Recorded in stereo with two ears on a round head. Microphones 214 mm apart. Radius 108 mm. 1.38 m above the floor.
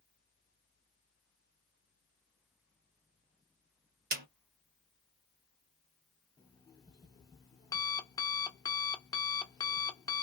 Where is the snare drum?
35° right (ahead or behind), 0.9 m.